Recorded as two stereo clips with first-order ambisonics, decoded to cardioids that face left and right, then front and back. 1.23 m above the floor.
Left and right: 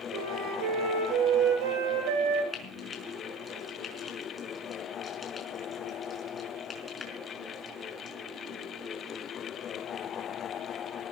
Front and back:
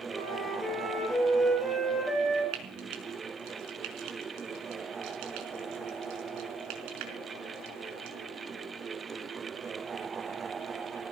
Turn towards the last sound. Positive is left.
turn(degrees=165)